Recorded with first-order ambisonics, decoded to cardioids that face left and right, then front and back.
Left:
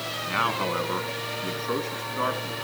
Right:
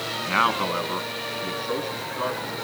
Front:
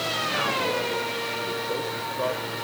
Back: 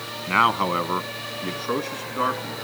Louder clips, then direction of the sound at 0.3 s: Right 4 dB, back 9 dB; 165° right.